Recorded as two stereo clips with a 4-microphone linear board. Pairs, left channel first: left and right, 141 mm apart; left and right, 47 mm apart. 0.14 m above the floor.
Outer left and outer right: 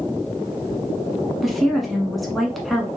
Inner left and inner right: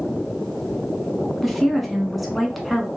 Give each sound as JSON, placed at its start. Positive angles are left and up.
{"t": 1.4, "sound": "a woman speaking", "side_deg": 0, "distance_m": 1.1}